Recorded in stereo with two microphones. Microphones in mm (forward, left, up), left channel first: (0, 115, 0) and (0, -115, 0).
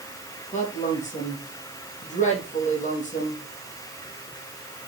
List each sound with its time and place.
0.5 s a woman speaking: 30° left (ahead or behind), 4 m